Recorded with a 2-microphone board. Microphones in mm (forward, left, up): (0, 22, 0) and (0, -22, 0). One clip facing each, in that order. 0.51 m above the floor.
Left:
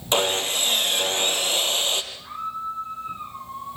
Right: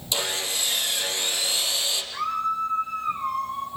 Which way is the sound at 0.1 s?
45° left (ahead or behind).